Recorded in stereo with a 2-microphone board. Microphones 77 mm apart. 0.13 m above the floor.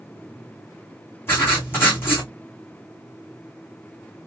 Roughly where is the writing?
Left.